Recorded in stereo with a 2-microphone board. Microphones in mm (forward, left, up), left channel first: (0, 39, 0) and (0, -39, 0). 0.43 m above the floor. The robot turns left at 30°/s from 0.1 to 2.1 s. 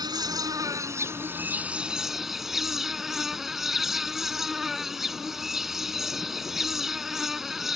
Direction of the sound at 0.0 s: 115° right.